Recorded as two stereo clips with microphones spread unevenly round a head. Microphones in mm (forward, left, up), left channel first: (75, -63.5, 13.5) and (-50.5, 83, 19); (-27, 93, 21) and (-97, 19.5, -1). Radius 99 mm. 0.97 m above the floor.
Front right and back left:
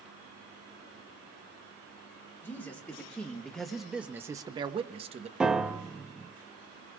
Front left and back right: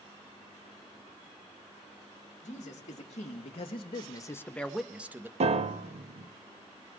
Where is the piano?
145° right, 0.7 m.